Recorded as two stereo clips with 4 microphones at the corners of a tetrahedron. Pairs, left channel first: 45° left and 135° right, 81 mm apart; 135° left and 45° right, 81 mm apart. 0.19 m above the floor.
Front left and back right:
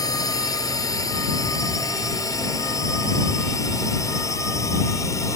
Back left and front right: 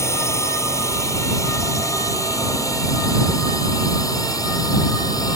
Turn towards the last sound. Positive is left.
turn(degrees=95)